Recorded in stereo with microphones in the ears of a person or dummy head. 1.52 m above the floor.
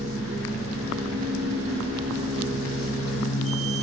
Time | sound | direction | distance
0.0 | a machine running | 15° right (ahead or behind) | 0.8 m